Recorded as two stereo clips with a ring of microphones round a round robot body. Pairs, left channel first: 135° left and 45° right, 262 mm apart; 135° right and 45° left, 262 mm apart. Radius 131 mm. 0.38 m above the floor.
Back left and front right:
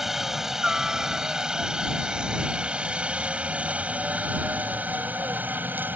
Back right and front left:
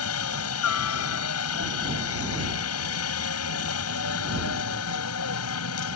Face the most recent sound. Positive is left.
turn(degrees=-125)